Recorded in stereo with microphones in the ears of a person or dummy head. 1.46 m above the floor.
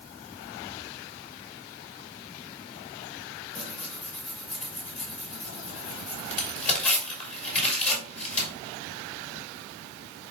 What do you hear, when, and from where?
3.5 s tearing paper: 45° left (ahead or behind), 4.5 m